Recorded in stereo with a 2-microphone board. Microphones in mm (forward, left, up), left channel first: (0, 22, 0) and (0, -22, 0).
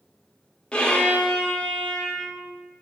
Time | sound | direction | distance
0.7 | a violin | 25° left (ahead or behind) | 0.6 m